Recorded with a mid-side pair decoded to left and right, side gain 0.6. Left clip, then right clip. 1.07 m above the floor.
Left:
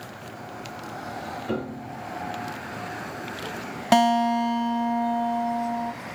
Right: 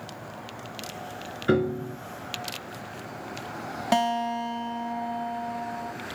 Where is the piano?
65° right, 3.5 m.